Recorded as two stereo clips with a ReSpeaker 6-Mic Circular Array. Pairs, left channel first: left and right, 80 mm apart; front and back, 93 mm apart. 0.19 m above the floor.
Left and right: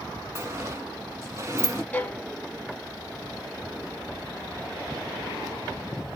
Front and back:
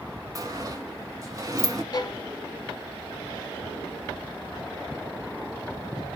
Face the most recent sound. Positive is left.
turn(degrees=25)